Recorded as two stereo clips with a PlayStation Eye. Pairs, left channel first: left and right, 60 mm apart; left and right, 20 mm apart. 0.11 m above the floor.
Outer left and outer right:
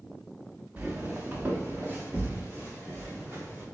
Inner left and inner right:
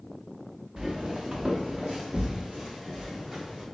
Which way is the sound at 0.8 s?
30° right (ahead or behind).